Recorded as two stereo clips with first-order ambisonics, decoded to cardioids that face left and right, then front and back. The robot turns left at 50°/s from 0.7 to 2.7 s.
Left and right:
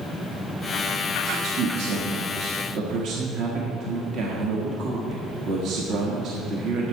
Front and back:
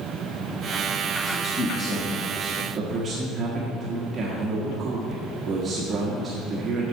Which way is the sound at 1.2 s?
50° right.